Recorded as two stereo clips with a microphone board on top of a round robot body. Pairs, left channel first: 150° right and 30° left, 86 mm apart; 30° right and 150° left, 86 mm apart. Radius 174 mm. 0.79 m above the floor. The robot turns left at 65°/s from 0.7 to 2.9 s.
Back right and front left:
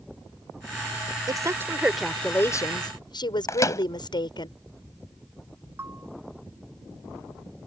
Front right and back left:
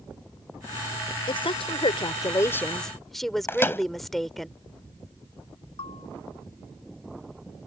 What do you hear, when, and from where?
1.3 s a woman speaking: 10° right; by 4.5 s 120° right
3.5 s a microwave: 95° right
5.8 s a bell: 35° right